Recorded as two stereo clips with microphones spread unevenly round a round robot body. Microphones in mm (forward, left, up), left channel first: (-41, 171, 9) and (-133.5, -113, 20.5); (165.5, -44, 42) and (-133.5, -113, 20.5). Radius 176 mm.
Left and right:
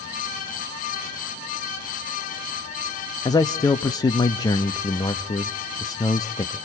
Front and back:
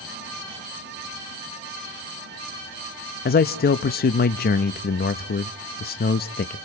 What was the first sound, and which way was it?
A man speaking, 15° left.